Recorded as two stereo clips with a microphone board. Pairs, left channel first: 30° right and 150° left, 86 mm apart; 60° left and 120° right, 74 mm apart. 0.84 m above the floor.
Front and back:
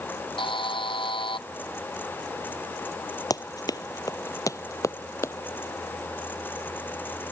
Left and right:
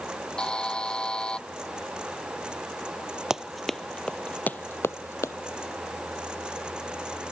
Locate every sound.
0.4 s a buzzer: 20° right
3.3 s running footsteps: 40° right; by 5.3 s 20° left